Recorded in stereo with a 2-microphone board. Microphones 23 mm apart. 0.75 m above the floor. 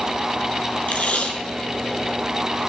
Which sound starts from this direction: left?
Tape being pulled, at 0.9 s.